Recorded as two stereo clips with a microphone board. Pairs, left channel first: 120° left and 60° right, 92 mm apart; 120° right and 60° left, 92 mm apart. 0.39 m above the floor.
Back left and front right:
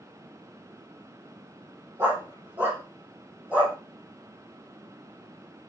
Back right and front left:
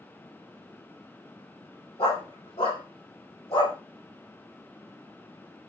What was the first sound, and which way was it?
A dog barking, 125° right.